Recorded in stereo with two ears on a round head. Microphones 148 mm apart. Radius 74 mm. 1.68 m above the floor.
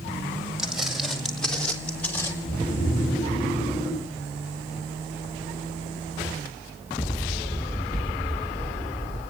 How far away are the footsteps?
About 3 m.